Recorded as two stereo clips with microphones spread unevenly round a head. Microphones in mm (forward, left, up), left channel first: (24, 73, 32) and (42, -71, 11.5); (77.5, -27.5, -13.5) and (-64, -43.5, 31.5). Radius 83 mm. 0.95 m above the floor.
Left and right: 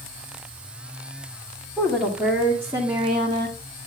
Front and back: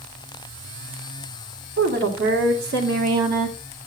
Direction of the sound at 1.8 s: 175° right.